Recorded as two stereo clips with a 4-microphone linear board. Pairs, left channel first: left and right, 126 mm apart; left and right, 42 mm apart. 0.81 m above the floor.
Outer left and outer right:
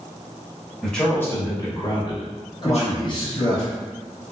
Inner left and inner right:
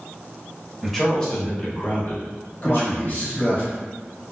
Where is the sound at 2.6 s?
35° left (ahead or behind), 0.7 m.